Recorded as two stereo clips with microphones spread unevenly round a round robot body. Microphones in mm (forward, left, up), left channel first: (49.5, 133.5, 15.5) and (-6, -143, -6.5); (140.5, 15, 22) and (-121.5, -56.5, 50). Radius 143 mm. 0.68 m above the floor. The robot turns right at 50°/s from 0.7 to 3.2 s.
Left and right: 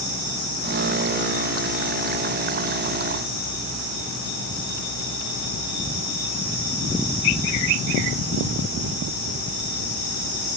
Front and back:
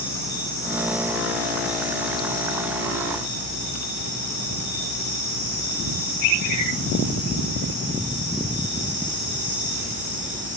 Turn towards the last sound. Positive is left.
No sound to turn to.